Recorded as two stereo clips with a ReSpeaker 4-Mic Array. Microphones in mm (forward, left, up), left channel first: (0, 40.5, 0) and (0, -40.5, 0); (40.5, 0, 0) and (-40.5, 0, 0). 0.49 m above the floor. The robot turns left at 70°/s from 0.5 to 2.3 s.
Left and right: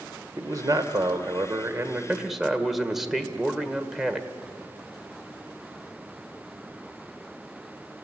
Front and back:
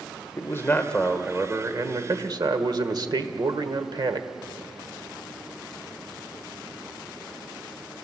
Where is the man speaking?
50° right, 1.7 m; by 4.3 s 175° right, 1.7 m.